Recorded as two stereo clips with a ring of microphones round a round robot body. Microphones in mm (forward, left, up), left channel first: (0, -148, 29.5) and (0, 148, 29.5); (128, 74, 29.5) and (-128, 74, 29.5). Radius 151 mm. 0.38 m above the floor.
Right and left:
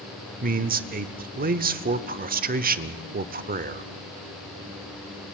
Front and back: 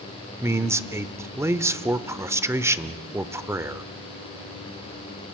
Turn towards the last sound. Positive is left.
turn(degrees=110)